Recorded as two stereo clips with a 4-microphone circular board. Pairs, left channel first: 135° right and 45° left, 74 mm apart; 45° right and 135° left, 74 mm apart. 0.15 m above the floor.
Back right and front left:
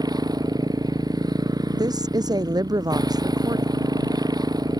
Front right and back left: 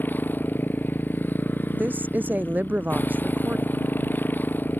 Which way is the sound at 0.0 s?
20° left.